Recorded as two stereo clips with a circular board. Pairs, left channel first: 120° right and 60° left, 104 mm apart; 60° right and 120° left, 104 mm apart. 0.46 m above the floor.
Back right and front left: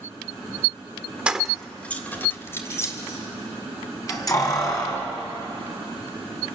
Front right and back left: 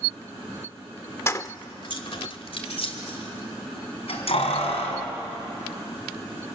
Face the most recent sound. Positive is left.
turn(degrees=-70)